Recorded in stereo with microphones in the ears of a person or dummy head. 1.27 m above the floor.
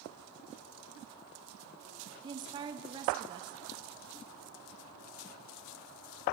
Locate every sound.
2.2 s a woman speaking: 25° right (ahead or behind), 0.6 m